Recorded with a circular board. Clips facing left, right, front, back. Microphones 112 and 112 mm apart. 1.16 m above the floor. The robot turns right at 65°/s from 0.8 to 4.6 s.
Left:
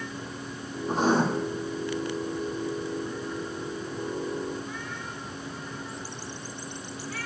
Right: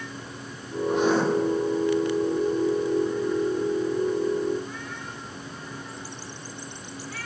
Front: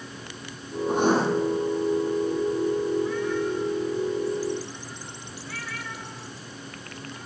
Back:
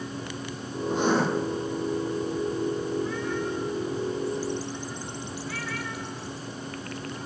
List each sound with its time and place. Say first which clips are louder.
0.9 s writing: right 1 dB, front 2 dB; 35° left, 8 m; by 1.2 s 55° left, 8 m